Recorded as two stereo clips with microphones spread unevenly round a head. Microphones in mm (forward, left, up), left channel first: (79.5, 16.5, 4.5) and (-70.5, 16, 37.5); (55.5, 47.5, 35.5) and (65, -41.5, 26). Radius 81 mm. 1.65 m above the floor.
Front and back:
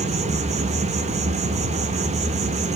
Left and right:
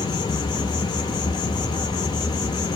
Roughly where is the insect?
Behind left.